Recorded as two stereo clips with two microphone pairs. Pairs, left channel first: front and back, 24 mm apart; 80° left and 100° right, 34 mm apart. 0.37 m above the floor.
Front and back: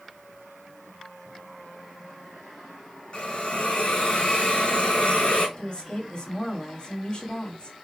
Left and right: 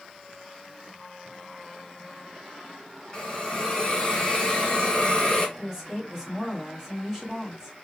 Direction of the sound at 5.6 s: 5° right.